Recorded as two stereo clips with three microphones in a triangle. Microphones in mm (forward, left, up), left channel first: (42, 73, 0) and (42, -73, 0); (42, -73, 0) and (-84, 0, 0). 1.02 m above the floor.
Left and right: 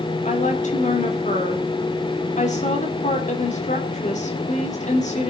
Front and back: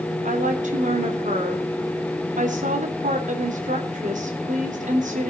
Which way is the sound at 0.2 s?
125° left.